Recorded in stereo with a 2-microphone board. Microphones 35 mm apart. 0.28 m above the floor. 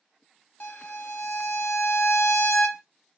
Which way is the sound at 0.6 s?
55° left (ahead or behind).